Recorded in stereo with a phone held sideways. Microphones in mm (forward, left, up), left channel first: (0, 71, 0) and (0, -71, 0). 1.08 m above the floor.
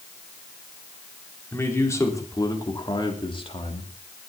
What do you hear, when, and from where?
1.5 s a man speaking: 15° left (ahead or behind), 4 m; by 3.9 s 45° left (ahead or behind), 2.5 m